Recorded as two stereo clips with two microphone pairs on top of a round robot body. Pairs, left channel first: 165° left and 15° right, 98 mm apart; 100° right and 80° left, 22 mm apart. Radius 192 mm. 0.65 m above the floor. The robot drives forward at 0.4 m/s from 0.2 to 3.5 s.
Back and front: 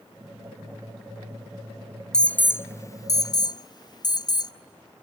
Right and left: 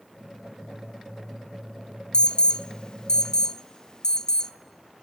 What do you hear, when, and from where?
2.1 s an alarm: 110° right, 0.7 m; by 4.5 s 150° right, 1.0 m